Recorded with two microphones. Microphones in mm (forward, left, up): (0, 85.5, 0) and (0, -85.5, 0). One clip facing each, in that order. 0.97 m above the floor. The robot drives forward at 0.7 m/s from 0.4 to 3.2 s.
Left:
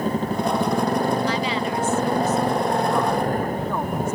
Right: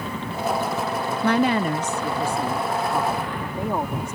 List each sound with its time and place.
0.0 s a motorcycle: 45° left (ahead or behind)
1.2 s a woman speaking: 60° right (ahead or behind); by 4.2 s 20° right (ahead or behind)